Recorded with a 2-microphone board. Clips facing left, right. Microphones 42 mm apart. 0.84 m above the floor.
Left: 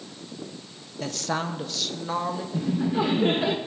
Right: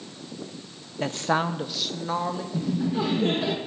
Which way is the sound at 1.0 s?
30° right (ahead or behind).